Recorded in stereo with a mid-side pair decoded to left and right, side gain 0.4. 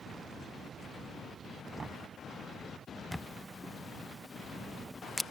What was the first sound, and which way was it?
Knocking, 40° right.